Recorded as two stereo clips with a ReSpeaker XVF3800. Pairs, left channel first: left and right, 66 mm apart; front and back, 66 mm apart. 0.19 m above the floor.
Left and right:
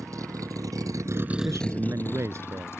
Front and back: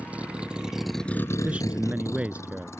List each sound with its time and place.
0.0 s a vehicle: 110° right; by 2.8 s 45° left
1.4 s a man speaking: 110° right